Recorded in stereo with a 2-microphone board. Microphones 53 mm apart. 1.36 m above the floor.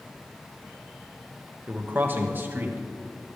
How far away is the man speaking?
About 1.4 m.